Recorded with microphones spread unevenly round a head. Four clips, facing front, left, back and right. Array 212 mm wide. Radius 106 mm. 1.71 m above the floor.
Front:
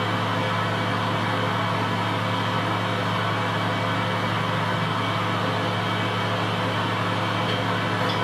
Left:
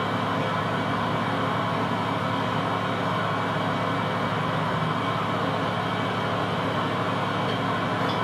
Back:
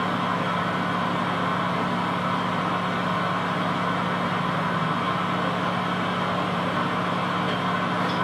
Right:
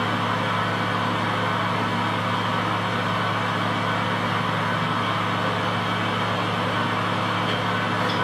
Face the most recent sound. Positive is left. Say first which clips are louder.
# right 2 dB, even
turn(degrees=140)